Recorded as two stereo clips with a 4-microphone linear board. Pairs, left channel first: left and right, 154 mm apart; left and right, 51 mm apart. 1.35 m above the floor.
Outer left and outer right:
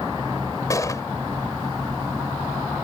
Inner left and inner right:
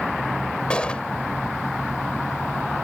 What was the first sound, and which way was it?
A gunshot, 20° left (ahead or behind).